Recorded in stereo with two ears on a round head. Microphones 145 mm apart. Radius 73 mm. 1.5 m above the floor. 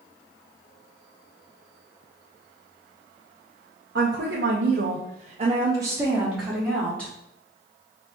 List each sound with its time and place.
4.0 s a woman speaking: 70° right (ahead or behind), 1.0 m; by 7.1 s 10° left (ahead or behind), 1.4 m